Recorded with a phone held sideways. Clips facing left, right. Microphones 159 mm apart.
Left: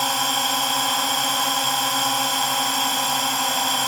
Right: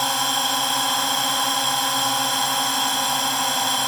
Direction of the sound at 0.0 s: Centre (ahead or behind).